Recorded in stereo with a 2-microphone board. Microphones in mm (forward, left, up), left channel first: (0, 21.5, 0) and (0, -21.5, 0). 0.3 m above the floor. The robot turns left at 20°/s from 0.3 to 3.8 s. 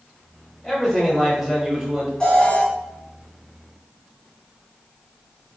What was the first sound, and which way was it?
A man speaking, centre (ahead or behind).